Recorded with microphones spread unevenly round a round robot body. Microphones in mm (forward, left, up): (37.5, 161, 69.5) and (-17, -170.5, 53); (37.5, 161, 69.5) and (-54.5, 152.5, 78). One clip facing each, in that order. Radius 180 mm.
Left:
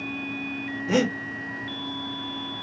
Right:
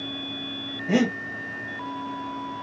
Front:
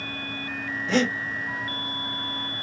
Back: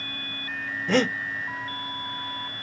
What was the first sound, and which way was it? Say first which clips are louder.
Breathing: right 1 dB, back 1 dB; 145° left.